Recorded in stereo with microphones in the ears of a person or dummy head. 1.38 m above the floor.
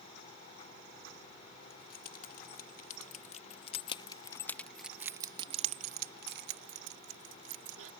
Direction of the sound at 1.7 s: 55° left (ahead or behind).